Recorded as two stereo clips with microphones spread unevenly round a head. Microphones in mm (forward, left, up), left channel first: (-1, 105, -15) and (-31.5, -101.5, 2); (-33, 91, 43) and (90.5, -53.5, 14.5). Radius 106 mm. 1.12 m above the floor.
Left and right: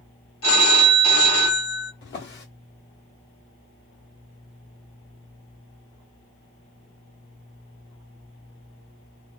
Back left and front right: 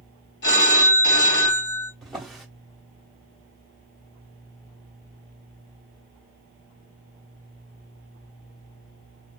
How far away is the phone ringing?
About 1.6 m.